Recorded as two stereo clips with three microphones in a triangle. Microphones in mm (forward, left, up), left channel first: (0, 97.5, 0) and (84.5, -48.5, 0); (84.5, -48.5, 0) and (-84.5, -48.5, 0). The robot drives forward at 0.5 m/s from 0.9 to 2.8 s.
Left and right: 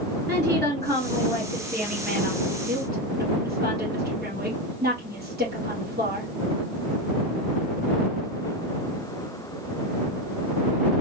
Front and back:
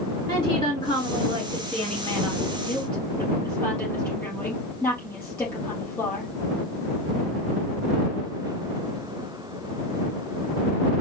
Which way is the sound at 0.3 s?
65° right.